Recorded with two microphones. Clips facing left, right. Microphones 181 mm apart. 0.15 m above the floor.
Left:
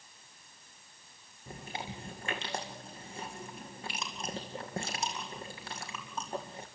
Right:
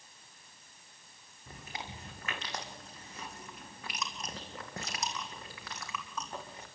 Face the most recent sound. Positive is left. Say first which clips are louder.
# left 4 dB
turn(degrees=30)  # may be behind; listen again after turning